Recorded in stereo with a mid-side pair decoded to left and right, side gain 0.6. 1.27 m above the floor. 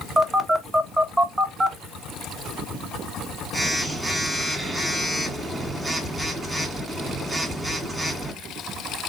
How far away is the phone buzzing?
About 1.2 m.